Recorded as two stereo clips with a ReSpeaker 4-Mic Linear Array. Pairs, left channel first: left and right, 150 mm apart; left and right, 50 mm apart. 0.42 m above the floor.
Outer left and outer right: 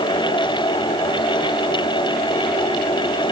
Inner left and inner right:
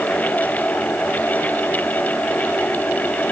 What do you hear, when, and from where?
Only background noise.